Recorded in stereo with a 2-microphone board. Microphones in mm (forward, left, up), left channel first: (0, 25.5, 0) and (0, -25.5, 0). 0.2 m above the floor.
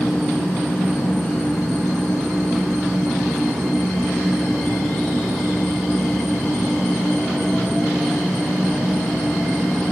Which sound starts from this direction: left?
An insect, at 0.0 s.